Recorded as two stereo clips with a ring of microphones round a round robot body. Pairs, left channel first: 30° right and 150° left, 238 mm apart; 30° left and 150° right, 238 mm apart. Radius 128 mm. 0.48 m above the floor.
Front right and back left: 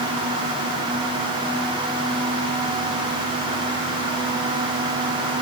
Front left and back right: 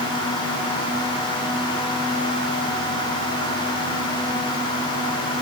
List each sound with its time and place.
Only background noise.